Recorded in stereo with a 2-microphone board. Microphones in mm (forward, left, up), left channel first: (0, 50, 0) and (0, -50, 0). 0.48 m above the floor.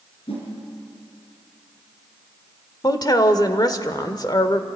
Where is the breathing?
No breathing in this recording.